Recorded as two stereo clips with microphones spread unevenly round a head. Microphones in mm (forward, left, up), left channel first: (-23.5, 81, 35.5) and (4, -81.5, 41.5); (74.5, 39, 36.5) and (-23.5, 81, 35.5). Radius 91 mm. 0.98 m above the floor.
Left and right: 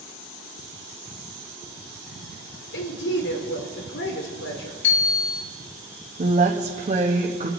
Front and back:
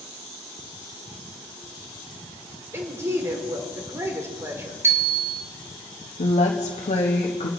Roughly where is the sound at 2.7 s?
Left.